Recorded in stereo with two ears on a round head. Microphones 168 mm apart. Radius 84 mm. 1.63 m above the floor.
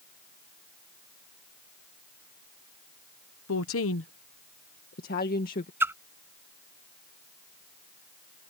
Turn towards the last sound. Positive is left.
turn(degrees=-15)  # may be behind; listen again after turning